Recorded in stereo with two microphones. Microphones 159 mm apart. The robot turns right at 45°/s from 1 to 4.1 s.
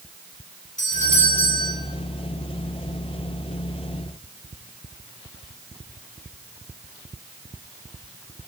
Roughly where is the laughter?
I don't hear laughter.